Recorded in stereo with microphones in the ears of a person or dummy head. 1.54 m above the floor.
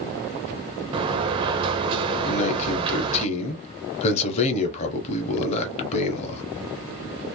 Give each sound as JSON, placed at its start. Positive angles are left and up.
{"t": 0.9, "sound": "a sliding door", "side_deg": -25, "distance_m": 0.5}
{"t": 2.2, "sound": "a man speaking", "side_deg": 35, "distance_m": 0.8}